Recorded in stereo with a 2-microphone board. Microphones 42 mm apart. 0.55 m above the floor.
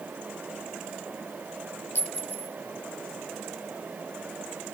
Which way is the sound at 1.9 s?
85° left.